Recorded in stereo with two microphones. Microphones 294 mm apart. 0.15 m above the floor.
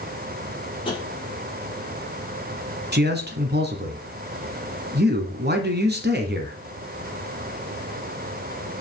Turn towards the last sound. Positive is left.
turn(degrees=-35)  # may be behind; listen again after turning